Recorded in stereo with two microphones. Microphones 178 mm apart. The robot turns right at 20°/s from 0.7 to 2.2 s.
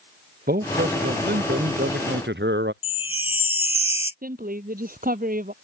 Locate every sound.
0.5 s a man speaking: 120° right; by 2.7 s 90° right
2.8 s a chime: 35° left (ahead or behind)
4.2 s a woman speaking: 55° right (ahead or behind)